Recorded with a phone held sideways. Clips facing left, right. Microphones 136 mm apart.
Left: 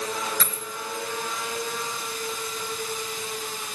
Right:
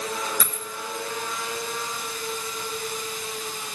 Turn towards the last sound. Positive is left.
turn(degrees=-10)  # may be behind; listen again after turning